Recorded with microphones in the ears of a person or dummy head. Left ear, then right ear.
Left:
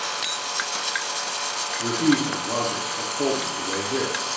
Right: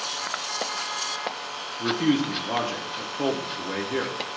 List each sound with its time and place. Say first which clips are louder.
1.8 s a man speaking: left 1 dB; 30° right (ahead or behind), 0.6 m